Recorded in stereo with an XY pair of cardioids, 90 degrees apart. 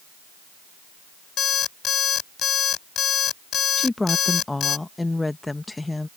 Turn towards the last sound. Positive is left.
turn(degrees=20)